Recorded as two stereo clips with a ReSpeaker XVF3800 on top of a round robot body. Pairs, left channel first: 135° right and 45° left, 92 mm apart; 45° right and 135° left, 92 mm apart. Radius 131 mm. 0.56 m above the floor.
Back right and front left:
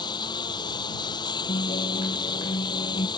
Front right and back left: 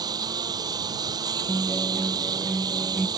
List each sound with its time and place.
0.0 s a lawn mower: 175° right
1.5 s a guitar: 135° right